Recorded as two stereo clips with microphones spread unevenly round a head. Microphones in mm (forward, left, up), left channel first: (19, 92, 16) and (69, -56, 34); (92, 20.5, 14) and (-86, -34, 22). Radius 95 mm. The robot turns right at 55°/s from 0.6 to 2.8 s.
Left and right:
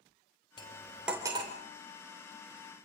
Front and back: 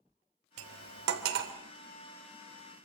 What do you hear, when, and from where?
0.6 s cutlery clinking: straight behind, 3 m; by 1.5 s 130° right, 3 m